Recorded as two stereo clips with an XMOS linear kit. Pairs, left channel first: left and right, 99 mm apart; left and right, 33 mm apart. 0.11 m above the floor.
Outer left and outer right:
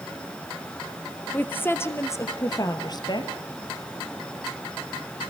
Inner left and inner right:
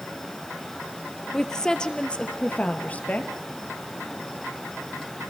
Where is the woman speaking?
20° left (ahead or behind), 3 m; by 3.3 s 50° left (ahead or behind), 2.5 m.